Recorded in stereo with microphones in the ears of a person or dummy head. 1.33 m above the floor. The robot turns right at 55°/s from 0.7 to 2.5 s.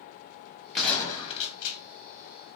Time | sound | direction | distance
0.8 | a gunshot | straight ahead | 1.7 m